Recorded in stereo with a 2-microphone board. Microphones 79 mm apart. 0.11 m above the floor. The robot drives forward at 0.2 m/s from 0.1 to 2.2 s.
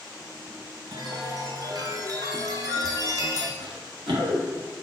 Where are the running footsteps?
85° right, 2.0 m; by 4.7 s 70° right (ahead or behind), 2.0 m.